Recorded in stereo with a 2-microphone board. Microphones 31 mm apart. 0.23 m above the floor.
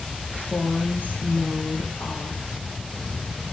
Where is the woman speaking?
80° left, 9 m.